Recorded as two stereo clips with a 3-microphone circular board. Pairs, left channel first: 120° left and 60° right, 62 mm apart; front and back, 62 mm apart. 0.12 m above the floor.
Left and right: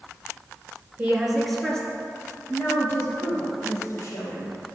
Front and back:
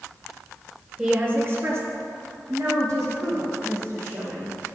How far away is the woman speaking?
About 1.9 m.